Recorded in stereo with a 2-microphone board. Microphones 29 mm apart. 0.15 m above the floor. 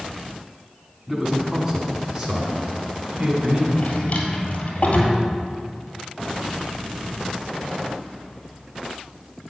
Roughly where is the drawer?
Left.